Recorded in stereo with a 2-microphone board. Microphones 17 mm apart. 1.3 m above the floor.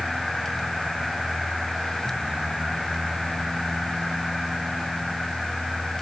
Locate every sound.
Only background noise.